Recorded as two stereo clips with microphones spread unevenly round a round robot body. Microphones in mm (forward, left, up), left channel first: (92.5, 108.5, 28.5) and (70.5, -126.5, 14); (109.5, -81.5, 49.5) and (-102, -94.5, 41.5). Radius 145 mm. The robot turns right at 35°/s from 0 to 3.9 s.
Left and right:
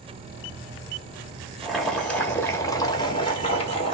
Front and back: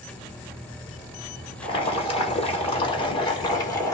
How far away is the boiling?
About 1.1 m.